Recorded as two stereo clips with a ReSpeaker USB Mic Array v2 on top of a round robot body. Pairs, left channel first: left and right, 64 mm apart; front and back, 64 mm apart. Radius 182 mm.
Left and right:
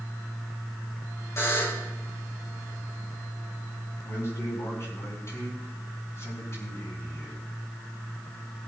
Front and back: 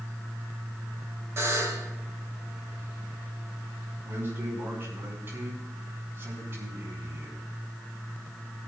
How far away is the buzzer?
About 4.5 m.